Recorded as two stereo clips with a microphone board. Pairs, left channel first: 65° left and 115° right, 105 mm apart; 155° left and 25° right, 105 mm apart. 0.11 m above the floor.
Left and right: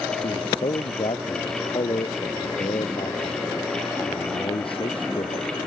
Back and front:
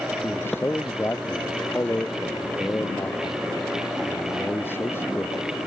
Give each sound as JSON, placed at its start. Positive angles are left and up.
{"t": 0.2, "sound": "a man speaking", "azimuth_deg": 90}